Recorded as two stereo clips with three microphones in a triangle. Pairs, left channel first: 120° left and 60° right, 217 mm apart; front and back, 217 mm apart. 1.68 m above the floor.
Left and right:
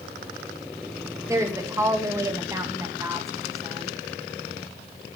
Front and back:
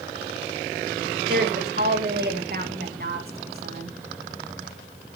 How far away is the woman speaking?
About 2.5 m.